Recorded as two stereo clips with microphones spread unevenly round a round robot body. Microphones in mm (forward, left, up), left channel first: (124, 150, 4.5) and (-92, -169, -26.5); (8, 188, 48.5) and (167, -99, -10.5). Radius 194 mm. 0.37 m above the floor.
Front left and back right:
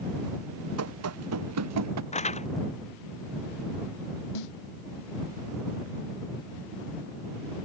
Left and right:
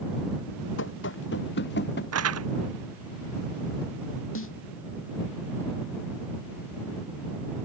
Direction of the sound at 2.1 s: 20° right.